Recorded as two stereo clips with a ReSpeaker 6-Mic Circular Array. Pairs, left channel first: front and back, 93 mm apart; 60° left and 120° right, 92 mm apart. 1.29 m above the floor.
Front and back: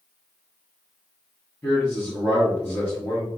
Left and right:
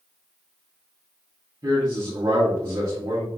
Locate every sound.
1.6 s a man speaking: 70° right, 0.8 m